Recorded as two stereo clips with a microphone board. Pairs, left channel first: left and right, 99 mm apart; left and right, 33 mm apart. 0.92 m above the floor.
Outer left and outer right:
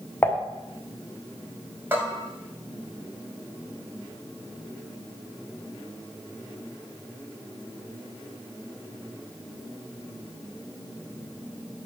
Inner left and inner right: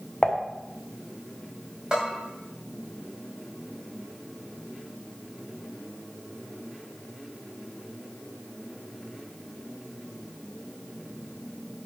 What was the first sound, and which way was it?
Dishes clattering, 20° left (ahead or behind).